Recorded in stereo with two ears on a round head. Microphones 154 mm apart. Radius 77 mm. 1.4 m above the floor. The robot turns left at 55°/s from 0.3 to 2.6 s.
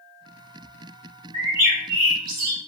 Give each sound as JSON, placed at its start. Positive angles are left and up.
{"t": 1.3, "sound": "a bird", "azimuth_deg": -40, "distance_m": 0.9}